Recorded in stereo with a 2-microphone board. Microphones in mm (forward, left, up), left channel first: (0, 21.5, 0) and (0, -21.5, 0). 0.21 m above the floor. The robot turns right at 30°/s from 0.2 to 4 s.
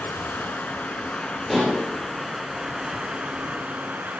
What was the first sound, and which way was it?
Running water, 115° left.